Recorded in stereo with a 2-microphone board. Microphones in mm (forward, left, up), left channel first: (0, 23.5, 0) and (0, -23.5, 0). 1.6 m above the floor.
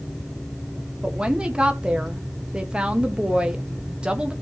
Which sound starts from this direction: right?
A woman speaking, at 1.0 s.